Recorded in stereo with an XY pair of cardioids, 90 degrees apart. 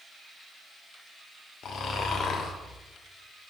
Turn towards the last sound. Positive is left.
turn(degrees=70)